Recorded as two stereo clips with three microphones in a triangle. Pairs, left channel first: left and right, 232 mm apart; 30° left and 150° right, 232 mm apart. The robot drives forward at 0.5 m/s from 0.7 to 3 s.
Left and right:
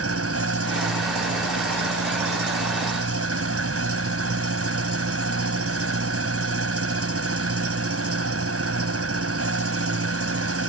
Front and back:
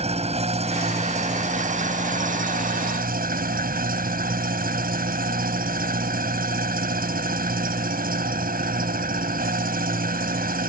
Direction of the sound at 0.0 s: 85° right.